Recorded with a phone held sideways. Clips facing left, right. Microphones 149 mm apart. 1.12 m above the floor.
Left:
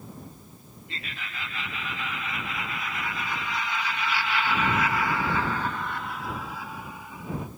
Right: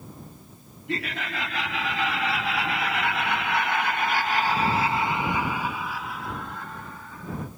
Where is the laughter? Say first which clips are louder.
Right 11 dB; 75° right (ahead or behind); by 7.5 s 15° left (ahead or behind).